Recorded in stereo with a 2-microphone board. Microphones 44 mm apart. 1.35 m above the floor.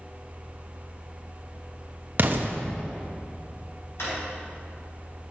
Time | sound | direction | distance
2.2 | an explosion | 50° right (ahead or behind) | 0.9 m
4.0 | a drawer | 75° left (ahead or behind) | 4 m